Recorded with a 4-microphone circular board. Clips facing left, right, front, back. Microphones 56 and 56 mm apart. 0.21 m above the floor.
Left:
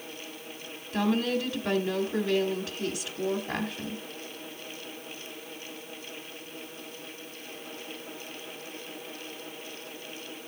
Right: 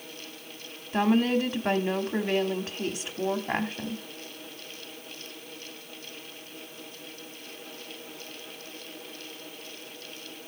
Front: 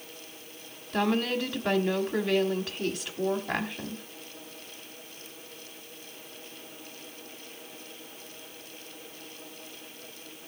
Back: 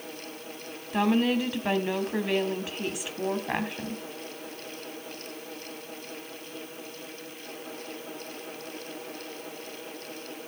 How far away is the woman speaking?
About 1.2 m.